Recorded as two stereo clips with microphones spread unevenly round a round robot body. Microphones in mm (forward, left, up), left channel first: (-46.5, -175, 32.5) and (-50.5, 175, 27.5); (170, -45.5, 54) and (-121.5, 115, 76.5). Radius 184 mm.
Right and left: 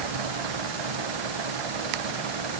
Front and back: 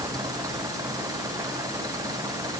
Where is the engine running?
70° left.